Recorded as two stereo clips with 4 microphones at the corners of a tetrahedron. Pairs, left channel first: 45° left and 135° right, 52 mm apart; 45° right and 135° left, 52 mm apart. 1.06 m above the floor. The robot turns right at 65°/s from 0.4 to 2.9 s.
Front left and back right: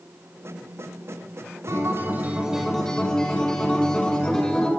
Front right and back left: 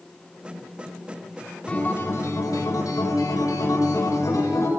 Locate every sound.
1.7 s a guitar: 110° right, 4.5 m; by 4.7 s 30° right, 4.5 m